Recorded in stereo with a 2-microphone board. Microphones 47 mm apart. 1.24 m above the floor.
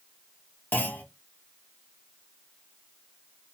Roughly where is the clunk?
Left.